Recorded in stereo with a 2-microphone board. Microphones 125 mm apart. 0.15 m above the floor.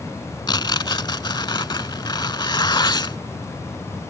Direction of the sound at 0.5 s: 40° left (ahead or behind).